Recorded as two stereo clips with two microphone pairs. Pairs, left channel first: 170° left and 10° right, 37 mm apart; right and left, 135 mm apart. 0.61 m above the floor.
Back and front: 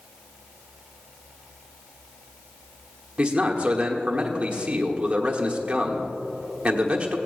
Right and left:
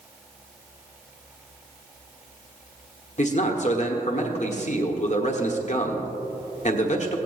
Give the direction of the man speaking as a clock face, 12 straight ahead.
2 o'clock.